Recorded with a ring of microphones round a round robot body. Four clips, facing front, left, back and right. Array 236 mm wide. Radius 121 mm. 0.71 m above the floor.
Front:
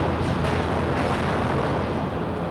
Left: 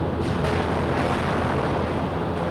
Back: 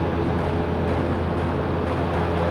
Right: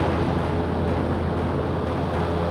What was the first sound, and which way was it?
Only background noise.